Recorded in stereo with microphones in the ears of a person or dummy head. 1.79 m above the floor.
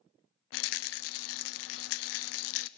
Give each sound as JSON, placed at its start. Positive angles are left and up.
{"t": 0.5, "sound": "a rattle", "side_deg": 75, "distance_m": 0.5}